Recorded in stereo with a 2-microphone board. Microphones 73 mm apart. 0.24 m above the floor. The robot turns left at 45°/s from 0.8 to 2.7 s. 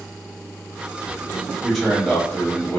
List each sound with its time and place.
1.6 s a man speaking: centre (ahead or behind), 1.0 m; by 2.8 s 20° left (ahead or behind), 1.0 m